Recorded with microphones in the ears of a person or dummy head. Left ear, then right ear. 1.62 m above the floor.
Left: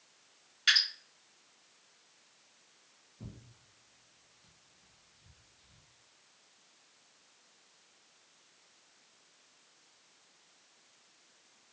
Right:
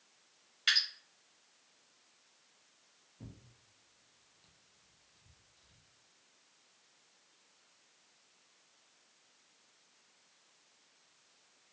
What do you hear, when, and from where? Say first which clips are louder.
0.7 s dripping: left 3 dB; centre (ahead or behind), 1.6 m
3.2 s tearing paper: left 3 dB; 15° right (ahead or behind), 0.5 m